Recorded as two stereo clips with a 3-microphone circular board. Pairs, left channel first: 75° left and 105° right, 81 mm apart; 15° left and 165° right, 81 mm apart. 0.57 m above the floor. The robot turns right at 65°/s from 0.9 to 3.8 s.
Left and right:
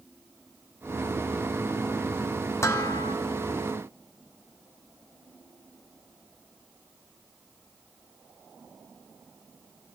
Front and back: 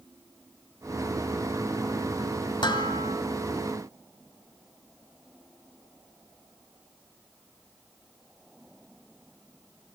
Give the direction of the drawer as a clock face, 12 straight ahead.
No drawer in this recording.